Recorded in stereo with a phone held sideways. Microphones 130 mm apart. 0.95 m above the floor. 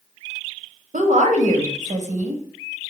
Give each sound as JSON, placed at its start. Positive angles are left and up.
{"t": 0.9, "sound": "a woman speaking", "side_deg": -70, "distance_m": 0.7}